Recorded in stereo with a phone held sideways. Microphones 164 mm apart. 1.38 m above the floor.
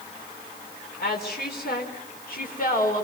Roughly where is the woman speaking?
Left.